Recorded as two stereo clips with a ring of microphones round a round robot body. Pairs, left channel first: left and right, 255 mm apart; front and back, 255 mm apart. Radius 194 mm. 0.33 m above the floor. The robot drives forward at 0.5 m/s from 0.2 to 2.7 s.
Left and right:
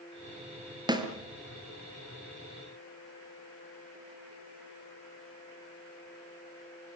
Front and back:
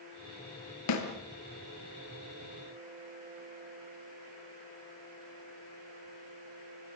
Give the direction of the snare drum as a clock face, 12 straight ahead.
1 o'clock.